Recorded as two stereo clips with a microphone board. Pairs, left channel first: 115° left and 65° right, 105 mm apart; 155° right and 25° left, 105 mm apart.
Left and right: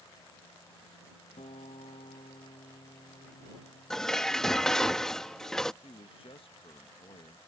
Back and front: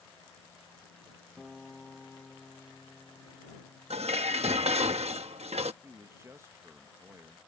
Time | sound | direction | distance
1.4 | a guitar | 115° left | ?
3.9 | dishes clattering | 25° left | ?
5.8 | a man speaking | 85° left | ?